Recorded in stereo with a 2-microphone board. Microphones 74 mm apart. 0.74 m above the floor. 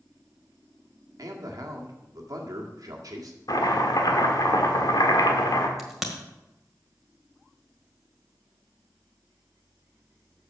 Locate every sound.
1.2 s a man speaking: 60° right (ahead or behind), 1.7 m
3.5 s chopping: 70° left (ahead or behind), 1.5 m
5.8 s a crack: 5° right (ahead or behind), 1.6 m